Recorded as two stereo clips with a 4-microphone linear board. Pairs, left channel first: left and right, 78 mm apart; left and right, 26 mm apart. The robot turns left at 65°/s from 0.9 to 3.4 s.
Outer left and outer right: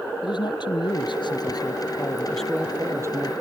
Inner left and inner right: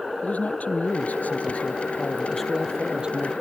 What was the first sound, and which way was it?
A man speaking, 100° left.